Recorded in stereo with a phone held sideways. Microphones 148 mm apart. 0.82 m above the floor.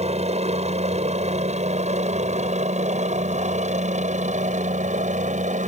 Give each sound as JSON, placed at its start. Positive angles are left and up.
{"t": 0.0, "sound": "a helicopter", "side_deg": -45}